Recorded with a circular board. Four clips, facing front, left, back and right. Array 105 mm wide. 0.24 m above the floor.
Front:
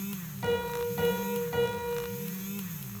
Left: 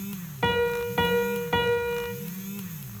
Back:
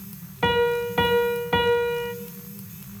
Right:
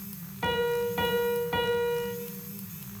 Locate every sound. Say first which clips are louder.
0.4 s a piano: left 2 dB, back 9 dB; 155° left, 1.1 m